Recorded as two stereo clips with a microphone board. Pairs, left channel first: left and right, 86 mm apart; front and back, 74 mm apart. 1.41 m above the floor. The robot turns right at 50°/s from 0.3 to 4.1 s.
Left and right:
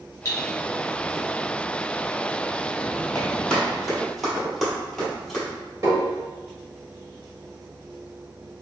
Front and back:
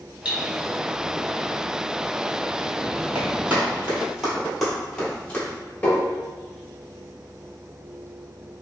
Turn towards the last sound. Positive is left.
turn(degrees=-65)